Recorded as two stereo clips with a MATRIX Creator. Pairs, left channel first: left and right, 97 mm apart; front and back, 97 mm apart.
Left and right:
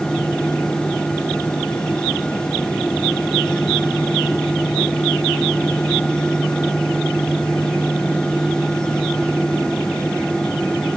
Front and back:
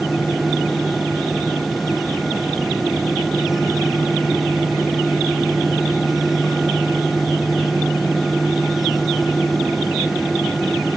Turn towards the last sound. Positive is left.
No sound to turn to.